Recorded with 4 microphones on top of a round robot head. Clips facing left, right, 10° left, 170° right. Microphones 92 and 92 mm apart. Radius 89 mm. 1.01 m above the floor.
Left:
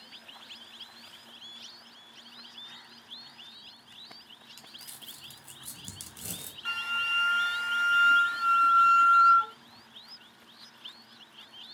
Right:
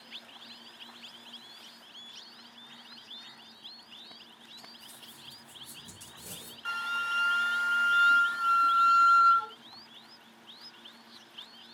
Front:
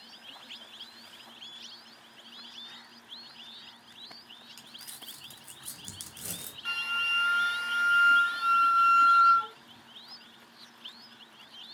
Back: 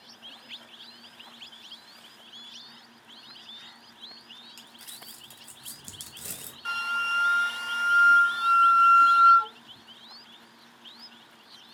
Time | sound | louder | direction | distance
4.6 | crumpling | right 1 dB, back 2 dB | 100° left | 1.0 m
6.7 | a flute | right 1 dB, back 5 dB | 145° right | 0.6 m